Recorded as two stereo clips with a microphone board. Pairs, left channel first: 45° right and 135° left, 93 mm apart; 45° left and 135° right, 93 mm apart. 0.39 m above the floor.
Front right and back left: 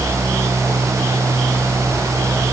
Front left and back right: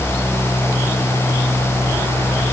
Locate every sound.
Only background noise.